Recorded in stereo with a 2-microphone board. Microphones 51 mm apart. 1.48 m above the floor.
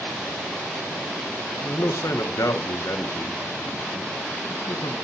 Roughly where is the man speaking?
Left.